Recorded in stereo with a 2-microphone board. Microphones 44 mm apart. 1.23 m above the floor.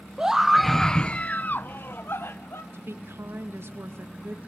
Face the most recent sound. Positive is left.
turn(degrees=-70)  # may be behind; listen again after turning